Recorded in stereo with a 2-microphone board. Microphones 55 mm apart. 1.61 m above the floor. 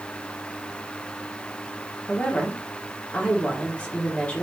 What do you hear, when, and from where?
2.1 s a woman speaking: 30° left (ahead or behind), 1.0 m